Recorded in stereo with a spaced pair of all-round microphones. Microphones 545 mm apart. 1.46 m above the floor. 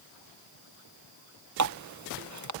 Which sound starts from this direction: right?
A running tap, at 1.6 s.